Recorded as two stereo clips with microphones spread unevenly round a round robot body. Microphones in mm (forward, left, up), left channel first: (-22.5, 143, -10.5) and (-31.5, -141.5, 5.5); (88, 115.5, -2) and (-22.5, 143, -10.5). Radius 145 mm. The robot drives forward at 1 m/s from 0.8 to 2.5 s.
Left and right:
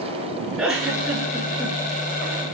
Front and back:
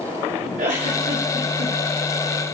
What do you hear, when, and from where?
0.6 s a giggle: straight behind, 8 m